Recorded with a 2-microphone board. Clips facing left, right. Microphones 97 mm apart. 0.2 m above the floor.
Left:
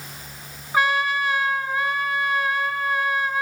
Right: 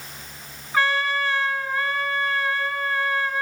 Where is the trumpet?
15° left (ahead or behind), 3.5 m.